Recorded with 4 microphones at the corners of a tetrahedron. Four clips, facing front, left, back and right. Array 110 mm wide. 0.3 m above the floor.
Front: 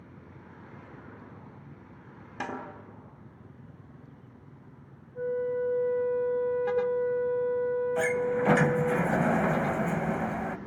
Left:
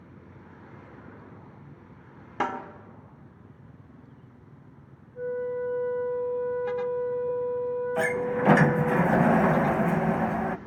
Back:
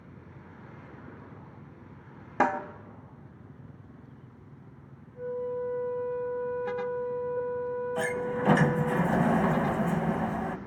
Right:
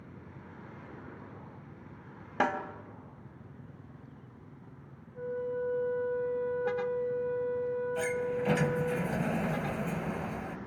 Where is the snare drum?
Straight behind, 2 m.